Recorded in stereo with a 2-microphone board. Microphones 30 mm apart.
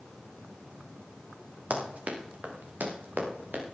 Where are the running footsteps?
55° right (ahead or behind), 3.5 m; by 3.6 s 80° right, 4.5 m.